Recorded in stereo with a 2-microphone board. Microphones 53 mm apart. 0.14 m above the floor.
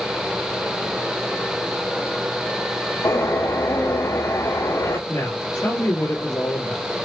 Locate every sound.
3.0 s a bird: 85° left, 5 m
5.1 s a woman speaking: 65° left (ahead or behind), 3 m